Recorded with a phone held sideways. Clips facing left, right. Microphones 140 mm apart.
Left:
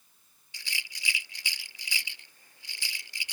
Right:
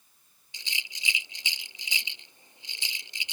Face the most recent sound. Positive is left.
turn(degrees=-20)  # may be behind; listen again after turning